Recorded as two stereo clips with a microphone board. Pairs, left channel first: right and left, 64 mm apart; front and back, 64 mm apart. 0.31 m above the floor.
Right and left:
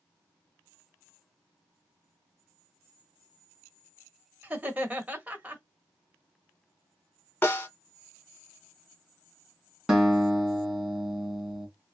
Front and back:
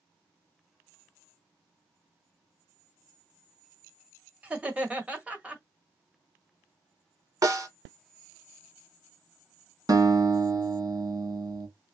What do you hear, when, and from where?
4.4 s laughter: 130° left, 1.5 m
7.4 s a snare drum: 145° right, 1.3 m
9.9 s a guitar: 170° left, 2 m